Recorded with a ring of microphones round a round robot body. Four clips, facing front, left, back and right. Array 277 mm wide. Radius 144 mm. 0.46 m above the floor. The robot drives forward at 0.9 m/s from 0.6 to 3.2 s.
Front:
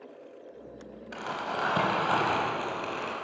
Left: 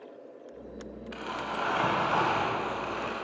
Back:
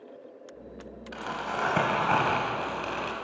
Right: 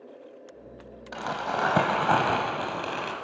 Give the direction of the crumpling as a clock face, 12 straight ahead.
3 o'clock.